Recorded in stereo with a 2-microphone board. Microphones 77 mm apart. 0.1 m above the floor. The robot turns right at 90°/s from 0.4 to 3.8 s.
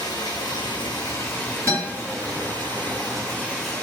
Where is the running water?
65° left, 0.8 m; by 3.9 s 10° left, 0.8 m.